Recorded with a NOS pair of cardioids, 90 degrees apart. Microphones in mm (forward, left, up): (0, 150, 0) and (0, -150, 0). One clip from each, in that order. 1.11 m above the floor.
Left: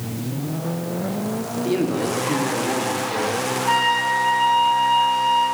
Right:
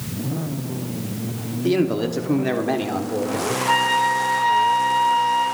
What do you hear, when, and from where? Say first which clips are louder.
1.6 s a man speaking: right 2 dB; 40° right, 2.5 m
3.7 s a flute: right 1 dB; 20° left, 9 m